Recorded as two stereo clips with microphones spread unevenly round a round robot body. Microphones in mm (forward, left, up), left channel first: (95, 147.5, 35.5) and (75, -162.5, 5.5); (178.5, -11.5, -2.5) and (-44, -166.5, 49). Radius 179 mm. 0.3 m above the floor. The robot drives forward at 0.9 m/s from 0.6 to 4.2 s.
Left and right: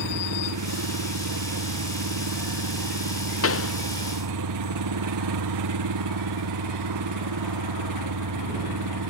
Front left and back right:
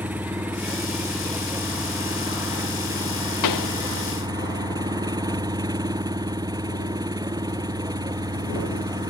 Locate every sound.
0.0 s an engine running: 60° right; by 9.1 s 70° right
3.4 s a pop: 40° left